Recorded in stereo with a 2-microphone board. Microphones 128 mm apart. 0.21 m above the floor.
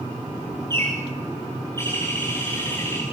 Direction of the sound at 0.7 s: 20° left (ahead or behind).